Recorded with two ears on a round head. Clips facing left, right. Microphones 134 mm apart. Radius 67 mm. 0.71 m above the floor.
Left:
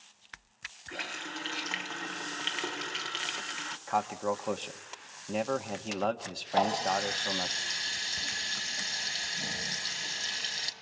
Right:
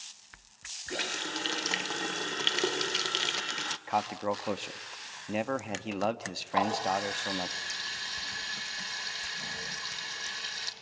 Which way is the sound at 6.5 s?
25° left (ahead or behind).